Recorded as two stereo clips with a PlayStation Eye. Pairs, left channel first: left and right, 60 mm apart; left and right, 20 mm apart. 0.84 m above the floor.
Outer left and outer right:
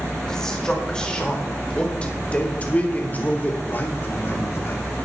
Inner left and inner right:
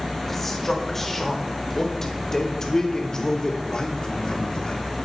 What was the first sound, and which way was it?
A man speaking, 10° left (ahead or behind).